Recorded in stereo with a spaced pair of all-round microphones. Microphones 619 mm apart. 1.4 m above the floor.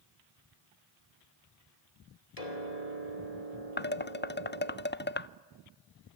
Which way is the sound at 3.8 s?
20° left (ahead or behind).